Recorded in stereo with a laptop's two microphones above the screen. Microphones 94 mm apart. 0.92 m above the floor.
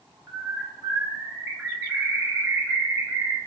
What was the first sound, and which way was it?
A bird, 30° right (ahead or behind).